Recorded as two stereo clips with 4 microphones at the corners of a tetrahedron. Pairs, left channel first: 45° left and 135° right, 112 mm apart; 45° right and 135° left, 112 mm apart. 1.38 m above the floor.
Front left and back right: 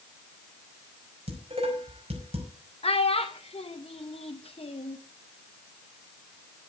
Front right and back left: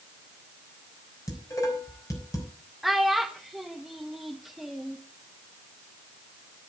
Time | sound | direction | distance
1.3 | dishes clattering | 105° right | 5.5 m
2.8 | a child speaking | 45° left | 0.9 m